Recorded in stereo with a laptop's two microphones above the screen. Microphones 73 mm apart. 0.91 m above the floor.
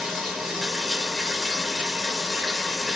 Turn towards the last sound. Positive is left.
turn(degrees=0)  # may be behind; listen again after turning